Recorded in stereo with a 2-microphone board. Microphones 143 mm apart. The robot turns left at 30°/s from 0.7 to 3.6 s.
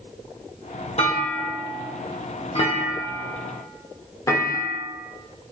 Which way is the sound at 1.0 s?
45° left (ahead or behind).